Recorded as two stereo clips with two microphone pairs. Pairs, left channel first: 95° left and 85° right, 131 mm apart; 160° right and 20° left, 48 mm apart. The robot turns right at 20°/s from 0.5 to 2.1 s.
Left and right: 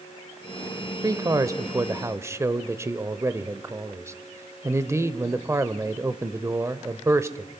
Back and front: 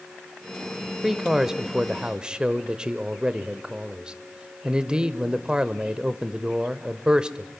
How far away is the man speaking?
About 0.9 m.